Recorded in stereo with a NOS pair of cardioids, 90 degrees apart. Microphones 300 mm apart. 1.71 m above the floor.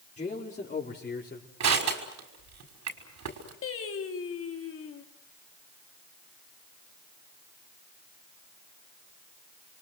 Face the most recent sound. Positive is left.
turn(degrees=45)